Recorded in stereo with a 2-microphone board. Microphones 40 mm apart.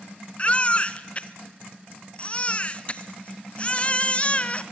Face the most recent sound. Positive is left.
turn(degrees=30)  # may be behind; listen again after turning